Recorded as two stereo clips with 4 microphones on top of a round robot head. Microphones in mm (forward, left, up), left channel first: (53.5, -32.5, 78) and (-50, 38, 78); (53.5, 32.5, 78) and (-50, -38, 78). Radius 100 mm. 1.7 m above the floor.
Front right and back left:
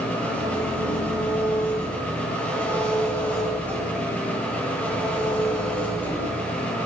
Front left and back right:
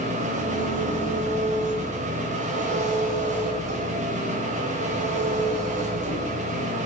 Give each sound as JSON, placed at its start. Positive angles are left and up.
{"t": 0.0, "sound": "an engine running", "azimuth_deg": -115, "distance_m": 8.0}